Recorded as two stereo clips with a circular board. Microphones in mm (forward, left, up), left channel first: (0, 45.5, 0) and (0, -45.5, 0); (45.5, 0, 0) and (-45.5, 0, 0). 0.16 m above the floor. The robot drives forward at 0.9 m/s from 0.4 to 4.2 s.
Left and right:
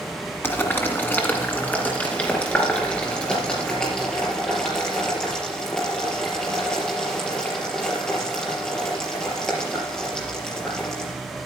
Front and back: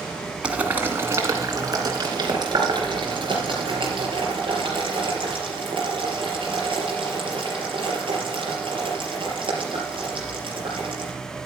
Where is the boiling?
115° left, 1.6 m; by 11.1 s 170° left, 4 m.